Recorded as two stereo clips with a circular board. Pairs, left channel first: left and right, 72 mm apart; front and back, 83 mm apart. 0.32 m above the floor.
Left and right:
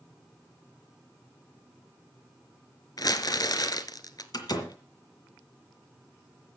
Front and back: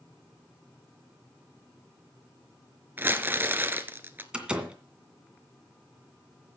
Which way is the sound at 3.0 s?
115° left.